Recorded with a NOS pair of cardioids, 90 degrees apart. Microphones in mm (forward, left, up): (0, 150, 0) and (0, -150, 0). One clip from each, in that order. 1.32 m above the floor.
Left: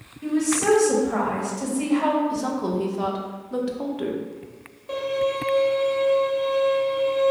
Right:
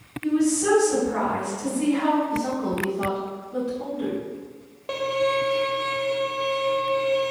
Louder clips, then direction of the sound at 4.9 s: Right 1 dB; 35° right.